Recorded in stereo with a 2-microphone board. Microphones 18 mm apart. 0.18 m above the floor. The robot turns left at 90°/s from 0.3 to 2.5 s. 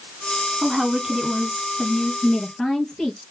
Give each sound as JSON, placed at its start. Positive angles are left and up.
{"t": 0.6, "sound": "a woman speaking", "azimuth_deg": -70, "distance_m": 1.6}
{"t": 2.2, "sound": "a woman speaking", "side_deg": 50, "distance_m": 3.0}